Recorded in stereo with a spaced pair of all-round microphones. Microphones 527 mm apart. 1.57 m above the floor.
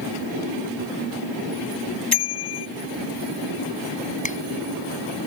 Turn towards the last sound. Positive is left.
turn(degrees=15)  # may be behind; listen again after turning